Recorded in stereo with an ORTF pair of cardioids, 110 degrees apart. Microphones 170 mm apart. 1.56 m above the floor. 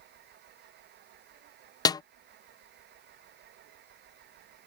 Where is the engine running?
70° right.